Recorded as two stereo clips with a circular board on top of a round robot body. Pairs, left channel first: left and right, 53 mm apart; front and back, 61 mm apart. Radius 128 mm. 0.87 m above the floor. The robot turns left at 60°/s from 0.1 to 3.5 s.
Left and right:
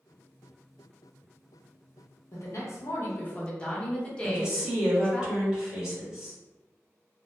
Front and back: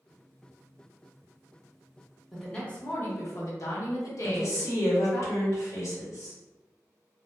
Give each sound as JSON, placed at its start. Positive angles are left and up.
{"t": 2.3, "sound": "a woman speaking", "azimuth_deg": 90, "distance_m": 1.0}
{"t": 4.2, "sound": "a woman speaking", "azimuth_deg": -20, "distance_m": 1.3}